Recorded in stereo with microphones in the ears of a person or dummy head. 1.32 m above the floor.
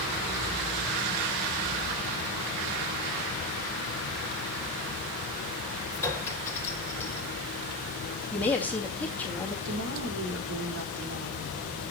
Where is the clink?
5° left (ahead or behind), 4.5 m.